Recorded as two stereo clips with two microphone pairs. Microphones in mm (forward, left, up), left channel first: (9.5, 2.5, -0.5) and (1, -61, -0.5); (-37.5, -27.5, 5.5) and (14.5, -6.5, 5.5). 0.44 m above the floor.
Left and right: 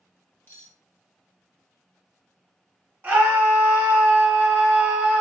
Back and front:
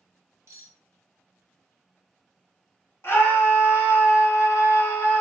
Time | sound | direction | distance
0.5 | cutlery clinking | 30° left | 0.9 m
3.0 | a scream | 145° right | 1.9 m